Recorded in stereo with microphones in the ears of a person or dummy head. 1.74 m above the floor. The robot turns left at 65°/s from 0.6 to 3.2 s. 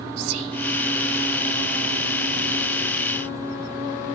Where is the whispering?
80° right, 0.8 m.